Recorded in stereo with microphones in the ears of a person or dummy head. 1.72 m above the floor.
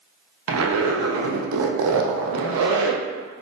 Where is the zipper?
80° right, 0.5 m.